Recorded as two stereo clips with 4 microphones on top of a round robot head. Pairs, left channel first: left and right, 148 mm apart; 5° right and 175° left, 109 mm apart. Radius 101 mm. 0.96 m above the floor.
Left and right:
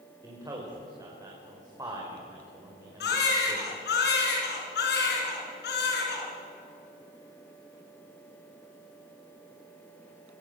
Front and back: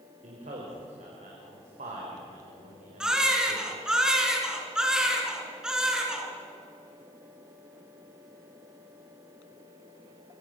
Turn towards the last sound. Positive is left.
turn(degrees=90)